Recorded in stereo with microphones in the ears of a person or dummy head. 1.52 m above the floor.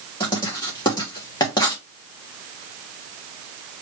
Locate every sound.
0.2 s writing: 25° left (ahead or behind), 1.0 m